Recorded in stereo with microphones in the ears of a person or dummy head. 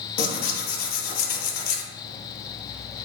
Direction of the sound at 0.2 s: 55° left (ahead or behind).